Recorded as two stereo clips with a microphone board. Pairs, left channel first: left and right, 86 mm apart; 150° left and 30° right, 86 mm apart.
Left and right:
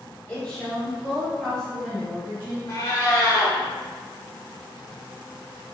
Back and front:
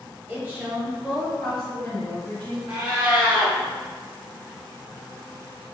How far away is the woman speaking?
About 1.4 m.